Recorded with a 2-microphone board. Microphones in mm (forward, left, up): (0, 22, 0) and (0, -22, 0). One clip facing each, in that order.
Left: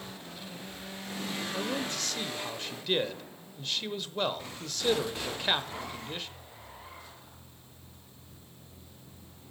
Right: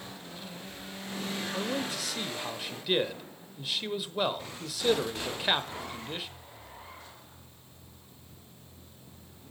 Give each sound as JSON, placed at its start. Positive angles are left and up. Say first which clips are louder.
{"t": 1.5, "sound": "a man speaking", "louder": "even", "side_deg": -5, "distance_m": 0.9}